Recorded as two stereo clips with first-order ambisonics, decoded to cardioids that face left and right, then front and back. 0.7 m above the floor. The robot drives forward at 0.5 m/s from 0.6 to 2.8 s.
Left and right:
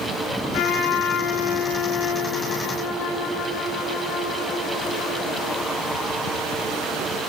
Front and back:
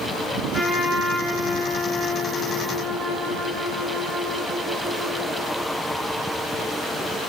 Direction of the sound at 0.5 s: 100° left.